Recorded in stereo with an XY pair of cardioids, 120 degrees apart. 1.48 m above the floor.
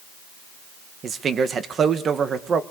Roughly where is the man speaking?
Ahead right.